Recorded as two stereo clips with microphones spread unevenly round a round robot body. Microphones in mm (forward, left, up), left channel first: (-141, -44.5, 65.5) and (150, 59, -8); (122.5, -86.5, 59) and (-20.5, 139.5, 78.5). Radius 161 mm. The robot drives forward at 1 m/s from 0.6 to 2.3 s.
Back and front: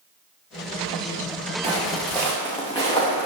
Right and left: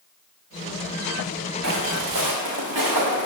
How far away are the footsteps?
About 3 m.